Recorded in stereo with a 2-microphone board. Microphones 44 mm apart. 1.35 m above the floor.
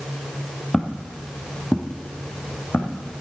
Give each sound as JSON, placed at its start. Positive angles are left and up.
{"t": 0.7, "sound": "footsteps", "side_deg": 15, "distance_m": 1.9}